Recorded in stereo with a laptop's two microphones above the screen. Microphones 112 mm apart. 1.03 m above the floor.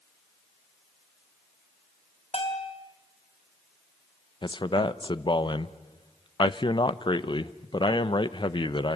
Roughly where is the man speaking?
Left.